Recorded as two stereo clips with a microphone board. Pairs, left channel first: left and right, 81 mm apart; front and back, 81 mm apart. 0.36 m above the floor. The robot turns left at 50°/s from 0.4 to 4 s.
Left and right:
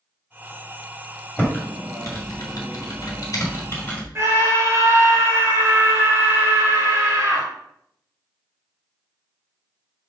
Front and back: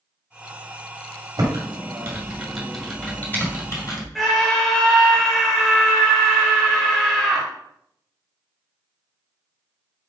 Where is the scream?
85° right, 1.2 m.